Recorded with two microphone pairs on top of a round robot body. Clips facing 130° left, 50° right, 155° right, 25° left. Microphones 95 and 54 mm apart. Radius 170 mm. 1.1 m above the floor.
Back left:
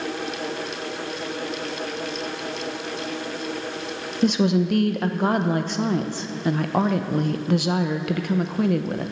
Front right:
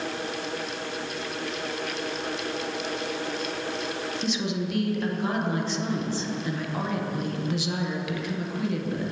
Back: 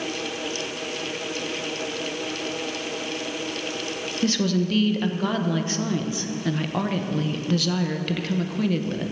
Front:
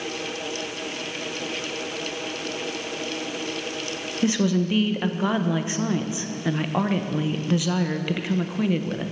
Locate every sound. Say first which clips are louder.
4.2 s a woman speaking: back left 11 dB, front 1 dB; 95° left, 1.0 m